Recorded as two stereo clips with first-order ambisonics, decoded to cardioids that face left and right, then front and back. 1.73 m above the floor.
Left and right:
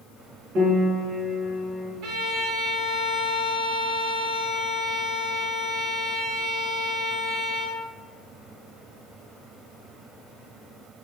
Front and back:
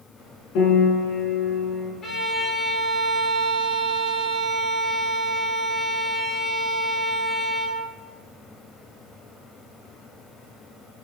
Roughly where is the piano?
Ahead right.